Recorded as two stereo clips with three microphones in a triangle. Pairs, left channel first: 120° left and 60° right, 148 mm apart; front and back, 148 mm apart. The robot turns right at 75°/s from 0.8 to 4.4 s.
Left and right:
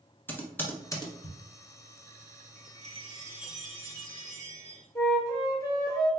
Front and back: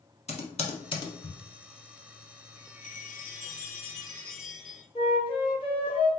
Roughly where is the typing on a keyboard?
Ahead left.